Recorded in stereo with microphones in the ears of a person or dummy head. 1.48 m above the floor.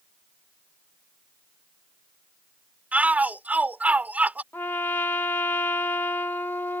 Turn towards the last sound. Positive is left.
turn(degrees=10)  # may be behind; listen again after turning